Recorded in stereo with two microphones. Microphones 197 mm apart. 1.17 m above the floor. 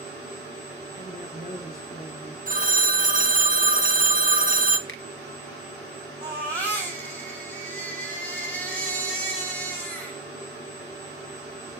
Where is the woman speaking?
45° left (ahead or behind), 3.5 m.